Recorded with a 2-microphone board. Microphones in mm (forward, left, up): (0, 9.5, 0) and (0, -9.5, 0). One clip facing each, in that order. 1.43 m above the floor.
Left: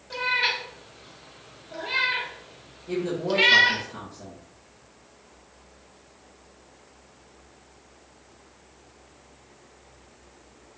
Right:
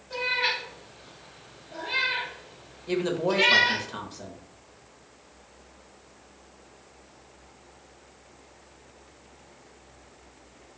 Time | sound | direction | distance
0.1 | a cat meowing | 40° left (ahead or behind) | 0.8 m
2.9 | a woman speaking | 45° right (ahead or behind) | 0.5 m